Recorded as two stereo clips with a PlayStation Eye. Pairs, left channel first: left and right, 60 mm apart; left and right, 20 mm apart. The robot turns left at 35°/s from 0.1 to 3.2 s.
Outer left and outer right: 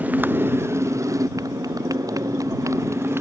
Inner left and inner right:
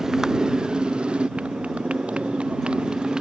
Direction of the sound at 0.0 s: 30° right.